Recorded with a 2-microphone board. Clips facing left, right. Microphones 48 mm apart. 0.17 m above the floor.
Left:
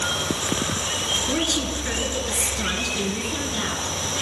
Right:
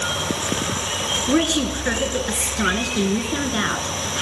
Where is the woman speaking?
35° right (ahead or behind), 1.7 m.